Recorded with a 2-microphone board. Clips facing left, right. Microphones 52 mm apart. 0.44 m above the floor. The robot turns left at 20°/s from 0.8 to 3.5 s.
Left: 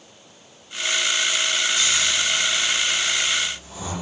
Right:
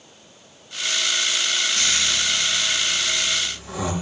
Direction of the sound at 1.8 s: 55° right (ahead or behind).